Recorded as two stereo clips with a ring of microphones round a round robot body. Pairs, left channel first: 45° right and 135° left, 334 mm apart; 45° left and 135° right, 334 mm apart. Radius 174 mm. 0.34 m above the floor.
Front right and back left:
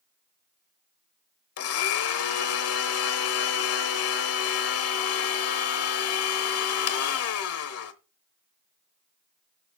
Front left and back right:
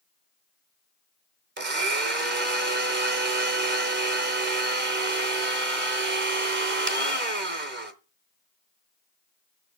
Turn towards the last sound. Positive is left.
turn(degrees=-80)